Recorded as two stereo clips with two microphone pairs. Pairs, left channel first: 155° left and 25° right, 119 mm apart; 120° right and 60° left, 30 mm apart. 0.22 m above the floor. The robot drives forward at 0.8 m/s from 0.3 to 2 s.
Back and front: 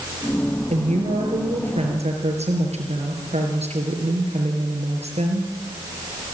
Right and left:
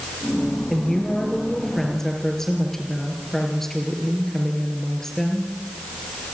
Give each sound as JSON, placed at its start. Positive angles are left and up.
{"t": 0.7, "sound": "a woman speaking", "azimuth_deg": -40, "distance_m": 5.5}